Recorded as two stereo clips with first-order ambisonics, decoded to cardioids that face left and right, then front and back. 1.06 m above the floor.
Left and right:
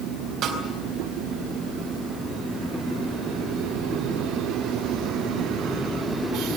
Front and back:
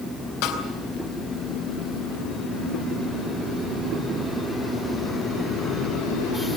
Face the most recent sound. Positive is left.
turn(degrees=-35)